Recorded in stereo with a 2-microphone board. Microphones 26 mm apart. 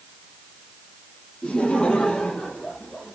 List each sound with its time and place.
1.4 s laughter: 35° left (ahead or behind), 8.5 m; by 3.2 s 30° left (ahead or behind), 8 m